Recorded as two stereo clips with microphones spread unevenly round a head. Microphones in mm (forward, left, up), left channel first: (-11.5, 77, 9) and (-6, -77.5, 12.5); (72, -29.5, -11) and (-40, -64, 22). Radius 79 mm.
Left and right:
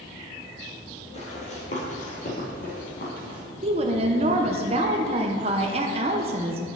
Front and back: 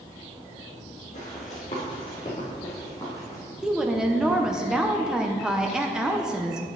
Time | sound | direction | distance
1.1 | running footsteps | 55° left | 2.5 m
3.6 | a woman speaking | 105° right | 0.8 m